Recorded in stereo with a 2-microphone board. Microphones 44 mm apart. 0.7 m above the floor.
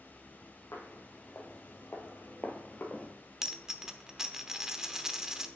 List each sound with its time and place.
0.7 s footsteps: 65° left (ahead or behind), 1.8 m; by 3.1 s 25° left (ahead or behind), 1.1 m
3.4 s a dropped coin: 15° right (ahead or behind), 0.7 m